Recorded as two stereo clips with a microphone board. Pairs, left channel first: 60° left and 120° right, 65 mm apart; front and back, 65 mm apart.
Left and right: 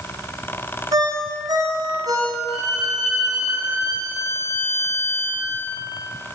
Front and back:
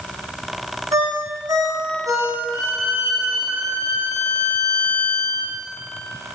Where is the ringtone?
145° right, 8 m.